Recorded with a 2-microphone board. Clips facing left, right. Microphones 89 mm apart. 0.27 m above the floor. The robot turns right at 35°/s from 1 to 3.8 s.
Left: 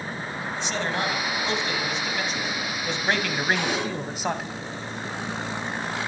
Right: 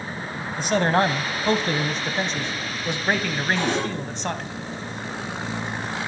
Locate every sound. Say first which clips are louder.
0.6 s a man speaking: right 9 dB; 85° right, 1.3 m; by 4.5 s 10° left, 1.3 m
3.5 s a cupboard door: right 3 dB; 35° right (ahead or behind), 5.5 m; by 3.9 s 25° right (ahead or behind), 5.5 m